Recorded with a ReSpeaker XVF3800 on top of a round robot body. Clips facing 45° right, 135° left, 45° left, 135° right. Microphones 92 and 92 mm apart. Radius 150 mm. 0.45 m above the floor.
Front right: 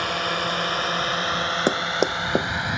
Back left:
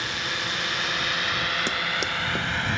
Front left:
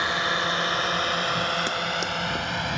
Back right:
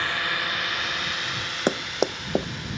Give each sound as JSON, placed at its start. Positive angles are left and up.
{"t": 0.0, "sound": "a drone", "azimuth_deg": -20}
{"t": 1.7, "sound": "running footsteps", "azimuth_deg": -85}